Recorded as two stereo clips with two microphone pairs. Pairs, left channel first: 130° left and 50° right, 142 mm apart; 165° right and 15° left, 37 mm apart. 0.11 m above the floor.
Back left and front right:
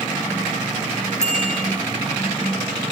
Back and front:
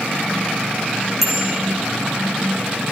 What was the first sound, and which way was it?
A bicycle bell, 100° left.